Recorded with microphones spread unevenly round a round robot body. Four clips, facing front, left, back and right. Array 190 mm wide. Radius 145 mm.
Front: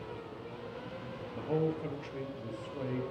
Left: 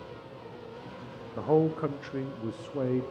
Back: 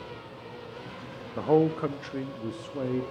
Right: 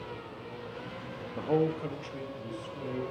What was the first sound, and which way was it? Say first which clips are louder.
A man speaking: left 3 dB, back 10 dB; 175° right.